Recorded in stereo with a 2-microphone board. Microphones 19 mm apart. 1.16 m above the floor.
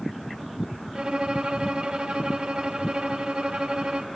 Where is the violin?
70° right (ahead or behind), 1.1 m.